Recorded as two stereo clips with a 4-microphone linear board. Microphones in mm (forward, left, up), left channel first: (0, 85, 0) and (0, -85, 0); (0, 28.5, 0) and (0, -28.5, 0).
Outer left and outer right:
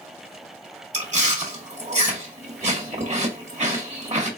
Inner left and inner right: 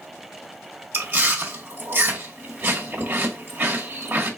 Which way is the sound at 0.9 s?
45° right (ahead or behind).